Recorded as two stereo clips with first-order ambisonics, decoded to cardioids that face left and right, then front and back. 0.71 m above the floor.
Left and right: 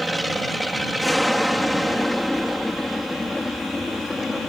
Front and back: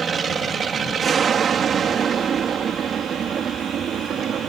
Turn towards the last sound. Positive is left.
turn(degrees=160)